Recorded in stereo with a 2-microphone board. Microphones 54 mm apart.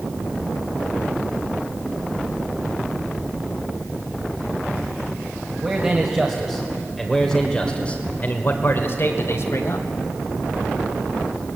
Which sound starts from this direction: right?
A man speaking, at 5.6 s.